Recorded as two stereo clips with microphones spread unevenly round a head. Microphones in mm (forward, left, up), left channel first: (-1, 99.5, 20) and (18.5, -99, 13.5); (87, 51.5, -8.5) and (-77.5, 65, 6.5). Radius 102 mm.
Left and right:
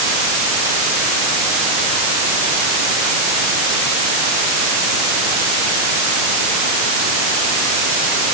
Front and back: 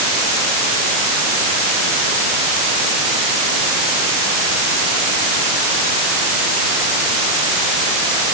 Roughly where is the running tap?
No running tap in this recording.